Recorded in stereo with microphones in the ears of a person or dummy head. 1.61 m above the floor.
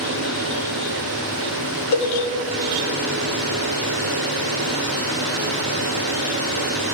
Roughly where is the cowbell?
Left.